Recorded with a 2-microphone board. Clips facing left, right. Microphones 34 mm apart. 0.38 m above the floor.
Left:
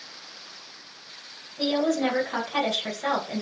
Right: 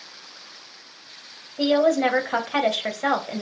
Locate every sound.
1.6 s a woman speaking: 55° right (ahead or behind), 2 m